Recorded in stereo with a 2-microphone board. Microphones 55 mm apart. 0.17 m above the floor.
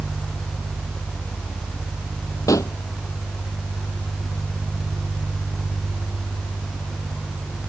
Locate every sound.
2.5 s a pop: 80° left